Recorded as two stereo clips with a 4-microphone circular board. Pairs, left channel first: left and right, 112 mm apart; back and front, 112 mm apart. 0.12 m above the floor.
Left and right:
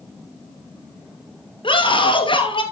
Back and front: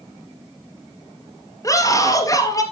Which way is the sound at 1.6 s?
125° left.